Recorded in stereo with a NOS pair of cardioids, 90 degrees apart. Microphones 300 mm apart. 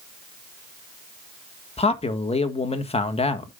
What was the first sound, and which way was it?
A man speaking, 20° left.